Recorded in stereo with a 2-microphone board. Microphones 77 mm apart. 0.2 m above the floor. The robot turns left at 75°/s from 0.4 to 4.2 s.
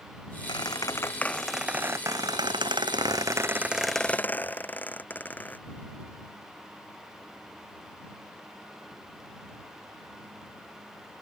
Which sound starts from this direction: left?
A squeak, at 0.5 s.